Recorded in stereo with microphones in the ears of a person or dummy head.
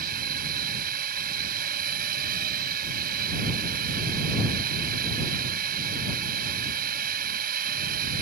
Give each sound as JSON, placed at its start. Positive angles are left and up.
{"t": 0.0, "sound": "a drone", "side_deg": -45}